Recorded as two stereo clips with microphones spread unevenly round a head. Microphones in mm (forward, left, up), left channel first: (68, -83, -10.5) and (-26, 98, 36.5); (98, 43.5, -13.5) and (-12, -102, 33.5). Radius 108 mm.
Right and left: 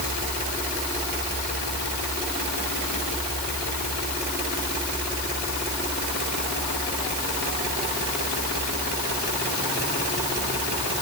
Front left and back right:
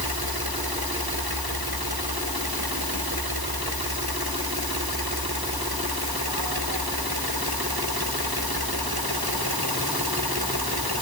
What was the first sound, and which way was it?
Only background noise.